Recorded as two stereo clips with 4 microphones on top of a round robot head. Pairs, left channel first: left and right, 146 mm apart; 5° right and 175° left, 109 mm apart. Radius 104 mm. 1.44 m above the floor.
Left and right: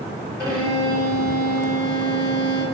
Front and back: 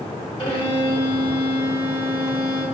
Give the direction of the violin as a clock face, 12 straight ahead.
11 o'clock.